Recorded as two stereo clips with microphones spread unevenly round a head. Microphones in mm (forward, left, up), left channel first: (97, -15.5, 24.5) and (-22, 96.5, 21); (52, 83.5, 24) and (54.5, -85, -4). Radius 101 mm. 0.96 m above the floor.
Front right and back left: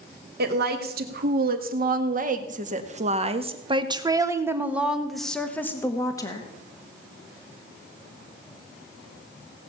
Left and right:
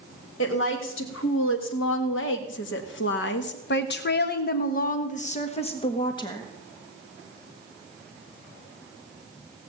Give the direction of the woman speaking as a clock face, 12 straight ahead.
8 o'clock.